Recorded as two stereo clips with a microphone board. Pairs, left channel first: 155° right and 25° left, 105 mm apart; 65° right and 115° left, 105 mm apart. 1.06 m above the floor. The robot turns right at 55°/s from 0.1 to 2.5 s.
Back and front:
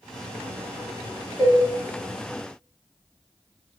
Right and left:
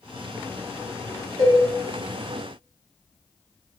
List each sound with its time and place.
1.4 s a cowbell: 125° left, 1.7 m; by 1.6 s 140° left, 1.7 m